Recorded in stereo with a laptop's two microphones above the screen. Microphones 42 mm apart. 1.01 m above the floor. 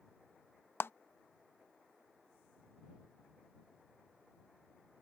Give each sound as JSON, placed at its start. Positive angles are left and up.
{"t": 0.8, "sound": "a clap", "side_deg": 60}